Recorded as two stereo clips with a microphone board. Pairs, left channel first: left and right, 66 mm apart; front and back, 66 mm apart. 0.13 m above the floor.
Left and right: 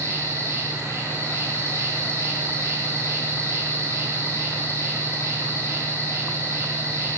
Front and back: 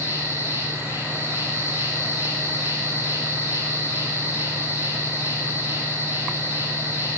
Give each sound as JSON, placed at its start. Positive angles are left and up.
{"t": 0.0, "sound": "an insect", "azimuth_deg": -130, "distance_m": 5.5}